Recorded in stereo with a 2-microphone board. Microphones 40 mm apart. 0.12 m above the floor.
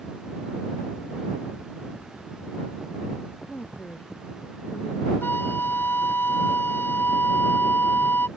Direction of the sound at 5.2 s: 60° left (ahead or behind).